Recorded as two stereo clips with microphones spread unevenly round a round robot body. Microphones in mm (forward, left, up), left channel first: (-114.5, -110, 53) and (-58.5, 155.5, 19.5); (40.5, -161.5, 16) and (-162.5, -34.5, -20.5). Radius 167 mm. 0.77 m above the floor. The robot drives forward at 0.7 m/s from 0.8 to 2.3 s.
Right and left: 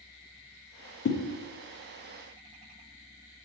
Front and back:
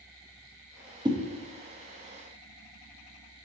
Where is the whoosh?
150° right, 0.6 m; by 1.2 s 155° right, 0.7 m.